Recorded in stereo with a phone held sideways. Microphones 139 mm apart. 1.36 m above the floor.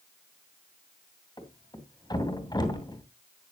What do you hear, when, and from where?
1.4 s a thud: 30° left (ahead or behind), 2.5 m